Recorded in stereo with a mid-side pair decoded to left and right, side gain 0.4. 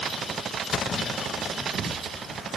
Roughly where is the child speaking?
No child speaking in this recording.